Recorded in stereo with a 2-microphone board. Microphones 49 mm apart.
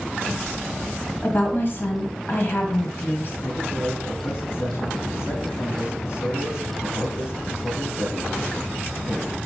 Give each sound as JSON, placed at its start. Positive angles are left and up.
{"t": 1.2, "sound": "a woman speaking", "side_deg": 45, "distance_m": 1.7}
{"t": 3.4, "sound": "a man speaking", "side_deg": 55, "distance_m": 2.5}